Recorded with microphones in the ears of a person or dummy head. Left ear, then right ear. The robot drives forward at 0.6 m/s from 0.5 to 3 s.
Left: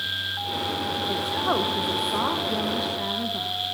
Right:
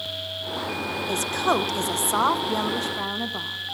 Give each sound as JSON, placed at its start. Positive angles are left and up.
{"t": 1.1, "sound": "a woman speaking", "side_deg": -70, "distance_m": 0.9}